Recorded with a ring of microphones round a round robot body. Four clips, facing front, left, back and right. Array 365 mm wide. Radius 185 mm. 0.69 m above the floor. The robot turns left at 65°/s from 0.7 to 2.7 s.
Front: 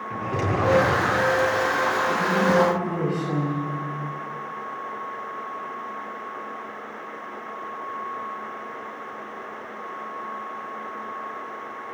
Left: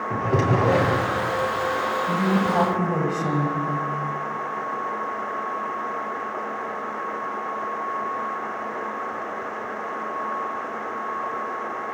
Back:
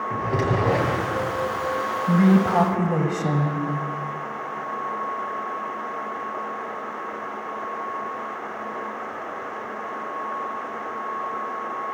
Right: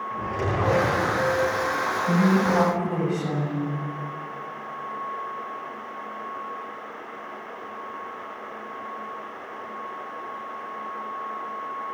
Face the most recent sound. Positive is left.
turn(degrees=160)